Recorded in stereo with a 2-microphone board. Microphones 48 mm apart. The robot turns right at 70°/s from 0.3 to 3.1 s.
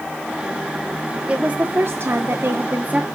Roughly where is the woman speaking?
Behind right.